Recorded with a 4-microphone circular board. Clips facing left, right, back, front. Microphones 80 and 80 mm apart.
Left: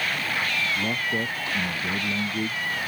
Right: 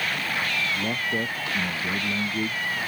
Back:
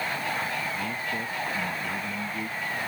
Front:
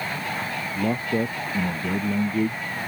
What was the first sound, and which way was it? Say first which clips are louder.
A man speaking: even, front 7 dB; 5° right.